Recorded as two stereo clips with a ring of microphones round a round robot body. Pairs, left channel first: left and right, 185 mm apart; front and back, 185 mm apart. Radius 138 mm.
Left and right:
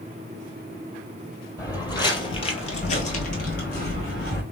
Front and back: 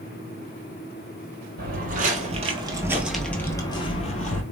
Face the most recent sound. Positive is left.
turn(degrees=35)